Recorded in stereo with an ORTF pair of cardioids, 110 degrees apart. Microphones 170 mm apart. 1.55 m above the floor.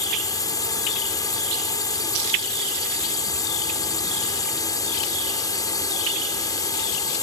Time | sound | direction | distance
0.0 | a drone | 25° left | ?